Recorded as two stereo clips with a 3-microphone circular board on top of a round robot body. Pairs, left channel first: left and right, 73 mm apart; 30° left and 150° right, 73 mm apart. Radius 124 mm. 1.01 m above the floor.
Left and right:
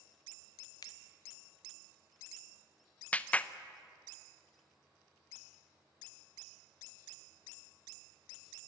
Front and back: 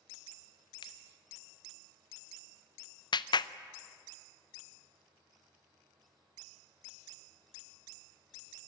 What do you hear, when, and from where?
0.8 s a finger snap: 50° left, 0.8 m
3.1 s a clap: 20° left, 0.7 m